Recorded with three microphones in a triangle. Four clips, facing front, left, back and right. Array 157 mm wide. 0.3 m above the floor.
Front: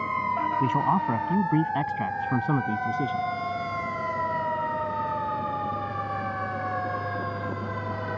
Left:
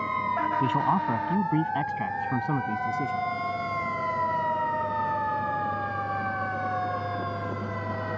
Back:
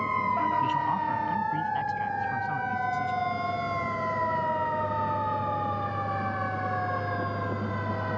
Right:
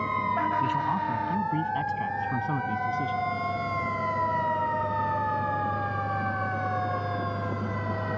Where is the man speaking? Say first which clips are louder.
Left 2 dB, front 3 dB; 40° left; by 3.3 s 15° left.